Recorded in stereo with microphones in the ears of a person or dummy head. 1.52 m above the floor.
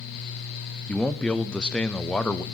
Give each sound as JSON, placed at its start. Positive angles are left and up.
{"t": 0.9, "sound": "a man speaking", "side_deg": 5, "distance_m": 0.6}